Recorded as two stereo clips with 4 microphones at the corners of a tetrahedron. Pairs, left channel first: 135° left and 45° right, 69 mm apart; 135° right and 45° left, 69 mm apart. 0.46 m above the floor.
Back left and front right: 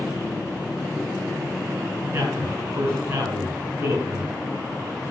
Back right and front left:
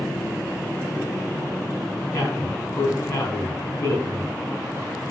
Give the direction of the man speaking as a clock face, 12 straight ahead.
3 o'clock.